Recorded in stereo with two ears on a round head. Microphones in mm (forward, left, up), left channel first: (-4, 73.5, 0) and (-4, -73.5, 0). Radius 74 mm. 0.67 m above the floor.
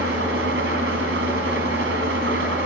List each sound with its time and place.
0.0 s an engine running: 75° right (ahead or behind), 4 m